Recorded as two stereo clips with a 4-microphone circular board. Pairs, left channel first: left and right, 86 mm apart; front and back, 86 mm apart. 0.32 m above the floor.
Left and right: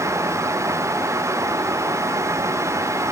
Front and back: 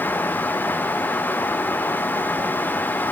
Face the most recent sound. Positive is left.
No sound to turn to.